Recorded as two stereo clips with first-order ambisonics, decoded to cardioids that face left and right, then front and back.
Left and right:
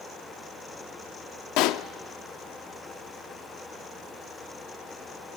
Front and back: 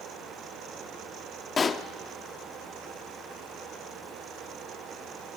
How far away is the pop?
About 0.7 m.